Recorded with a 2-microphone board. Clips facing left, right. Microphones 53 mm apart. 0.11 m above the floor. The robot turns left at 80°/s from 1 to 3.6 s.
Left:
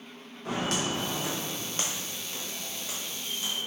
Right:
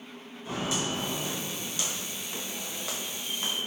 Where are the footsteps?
55° left (ahead or behind), 1.6 m; by 3.7 s 25° right (ahead or behind), 1.1 m.